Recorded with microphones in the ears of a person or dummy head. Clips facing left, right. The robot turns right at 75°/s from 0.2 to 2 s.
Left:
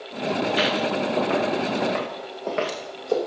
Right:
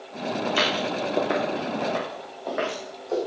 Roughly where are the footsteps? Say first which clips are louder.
Left 1 dB; right.